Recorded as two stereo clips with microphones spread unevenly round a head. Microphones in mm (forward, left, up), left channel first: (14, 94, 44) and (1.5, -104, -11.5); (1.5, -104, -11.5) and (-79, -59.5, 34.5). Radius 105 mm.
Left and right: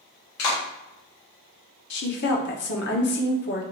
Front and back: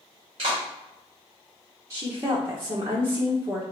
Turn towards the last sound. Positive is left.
turn(degrees=100)